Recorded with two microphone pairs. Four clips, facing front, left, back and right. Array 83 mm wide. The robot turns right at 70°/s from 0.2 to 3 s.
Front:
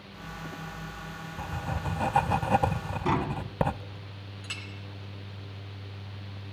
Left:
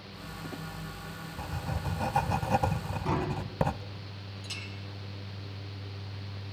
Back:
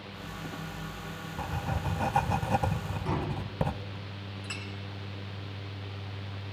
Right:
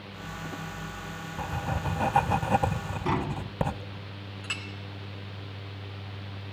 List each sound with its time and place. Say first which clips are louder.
1.4 s writing: right 6 dB, even; 110° right, 0.6 m; by 3.8 s 5° left, 0.6 m
3.0 s tapping: right 2 dB, front 6 dB; 25° right, 1.9 m
4.4 s a clink: right 7 dB, even; 90° right, 2 m